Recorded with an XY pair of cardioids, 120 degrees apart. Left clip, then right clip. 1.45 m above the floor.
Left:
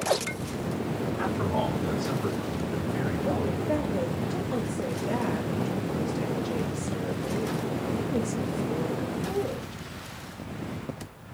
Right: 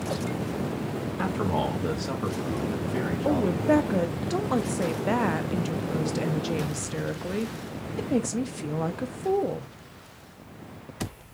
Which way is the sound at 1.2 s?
25° right.